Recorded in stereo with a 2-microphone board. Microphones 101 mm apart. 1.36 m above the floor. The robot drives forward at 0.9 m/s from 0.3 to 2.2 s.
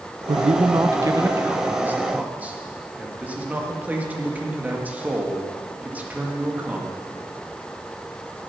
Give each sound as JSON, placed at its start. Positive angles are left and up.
{"t": 0.3, "sound": "a man speaking", "side_deg": -75, "distance_m": 0.5}